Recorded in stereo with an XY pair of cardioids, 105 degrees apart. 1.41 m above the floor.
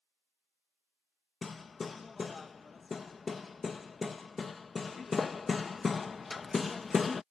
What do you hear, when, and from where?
1.4 s hammering: 35° left